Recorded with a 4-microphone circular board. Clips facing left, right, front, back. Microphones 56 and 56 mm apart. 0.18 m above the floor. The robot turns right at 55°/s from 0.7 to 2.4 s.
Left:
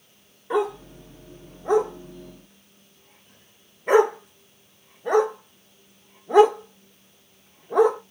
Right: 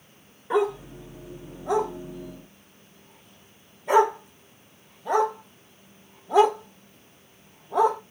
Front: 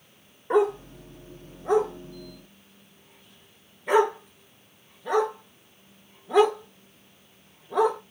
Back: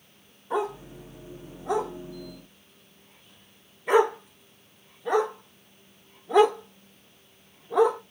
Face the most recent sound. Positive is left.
turn(degrees=90)